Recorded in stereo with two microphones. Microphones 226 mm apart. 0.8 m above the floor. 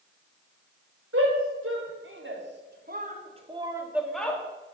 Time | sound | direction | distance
1.1 | a shout | 70° right (ahead or behind) | 3.5 m